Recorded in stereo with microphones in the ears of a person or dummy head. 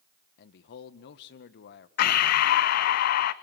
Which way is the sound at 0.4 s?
70° left (ahead or behind).